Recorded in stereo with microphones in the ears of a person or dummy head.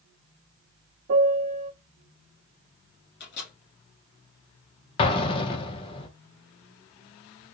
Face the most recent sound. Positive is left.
turn(degrees=25)  # may be behind; listen again after turning